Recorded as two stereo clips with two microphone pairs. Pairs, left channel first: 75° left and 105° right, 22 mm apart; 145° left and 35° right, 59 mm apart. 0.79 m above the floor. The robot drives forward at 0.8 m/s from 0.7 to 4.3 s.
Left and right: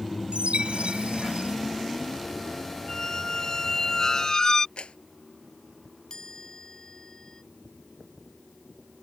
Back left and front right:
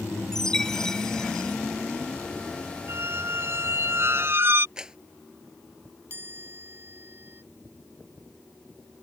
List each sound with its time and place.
0.3 s a chime: 135° right
2.9 s a squeak: 10° left
4.8 s a clap: 45° left
6.1 s a chime: 15° left